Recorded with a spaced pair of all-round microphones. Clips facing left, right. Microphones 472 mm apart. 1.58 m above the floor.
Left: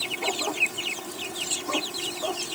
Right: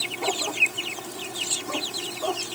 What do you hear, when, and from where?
Only background noise.